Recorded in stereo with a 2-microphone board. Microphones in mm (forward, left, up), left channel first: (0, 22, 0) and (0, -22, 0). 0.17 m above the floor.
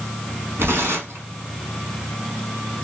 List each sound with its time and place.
0.6 s tearing paper: 80° right, 1.6 m